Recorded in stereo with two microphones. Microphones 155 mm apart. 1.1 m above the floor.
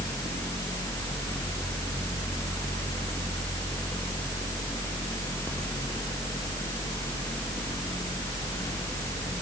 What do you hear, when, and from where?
Only background noise.